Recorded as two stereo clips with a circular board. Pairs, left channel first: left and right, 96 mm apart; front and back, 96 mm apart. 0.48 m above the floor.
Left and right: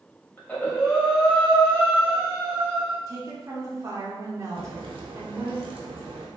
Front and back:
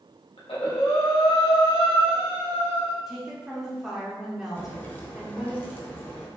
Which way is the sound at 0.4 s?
15° left.